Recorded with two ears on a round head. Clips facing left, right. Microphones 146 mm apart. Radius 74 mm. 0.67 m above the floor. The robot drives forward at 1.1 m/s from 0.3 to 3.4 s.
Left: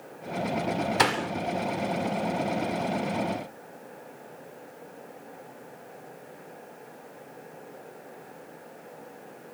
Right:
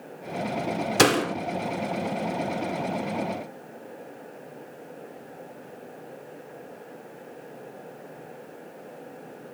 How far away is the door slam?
About 1.0 m.